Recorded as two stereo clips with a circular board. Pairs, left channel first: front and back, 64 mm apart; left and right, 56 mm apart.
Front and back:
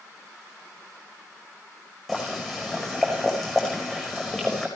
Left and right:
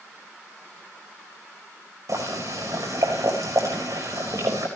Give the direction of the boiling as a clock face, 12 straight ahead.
3 o'clock.